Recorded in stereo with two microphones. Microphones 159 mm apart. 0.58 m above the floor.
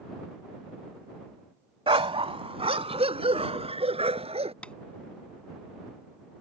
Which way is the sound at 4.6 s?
10° left (ahead or behind).